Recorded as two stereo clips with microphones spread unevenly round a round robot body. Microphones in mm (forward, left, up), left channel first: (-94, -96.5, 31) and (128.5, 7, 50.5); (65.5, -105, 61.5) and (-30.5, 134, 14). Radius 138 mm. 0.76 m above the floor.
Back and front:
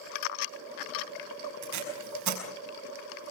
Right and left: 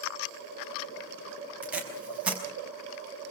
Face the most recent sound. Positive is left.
turn(degrees=25)